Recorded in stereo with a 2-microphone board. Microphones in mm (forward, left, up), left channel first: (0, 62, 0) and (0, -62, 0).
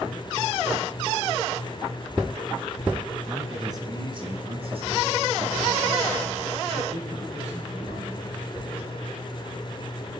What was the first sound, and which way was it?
A man speaking, 15° right (ahead or behind).